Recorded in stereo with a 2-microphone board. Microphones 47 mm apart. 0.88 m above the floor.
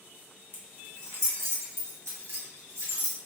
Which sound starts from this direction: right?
Keys jangling, at 0.5 s.